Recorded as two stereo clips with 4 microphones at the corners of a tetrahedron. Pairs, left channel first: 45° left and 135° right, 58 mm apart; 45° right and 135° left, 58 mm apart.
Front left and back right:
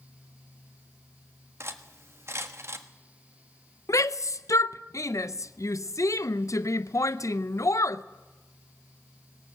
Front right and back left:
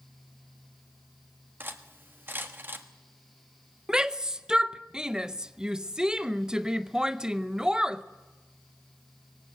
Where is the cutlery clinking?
170° right, 1.4 m.